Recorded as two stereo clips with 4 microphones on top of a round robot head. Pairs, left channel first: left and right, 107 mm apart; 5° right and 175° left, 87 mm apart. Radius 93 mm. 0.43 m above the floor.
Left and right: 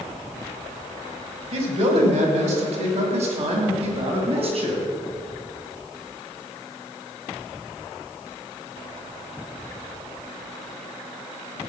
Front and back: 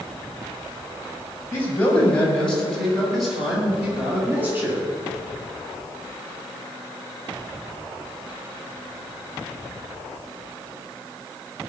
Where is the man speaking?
75° right, 3 m; by 4.8 s 120° right, 4 m.